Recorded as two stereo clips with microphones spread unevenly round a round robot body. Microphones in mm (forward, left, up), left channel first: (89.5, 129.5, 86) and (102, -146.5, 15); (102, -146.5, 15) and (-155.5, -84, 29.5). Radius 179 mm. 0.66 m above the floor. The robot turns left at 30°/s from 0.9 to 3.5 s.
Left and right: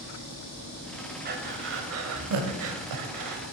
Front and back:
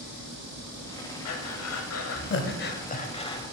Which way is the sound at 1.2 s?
25° right.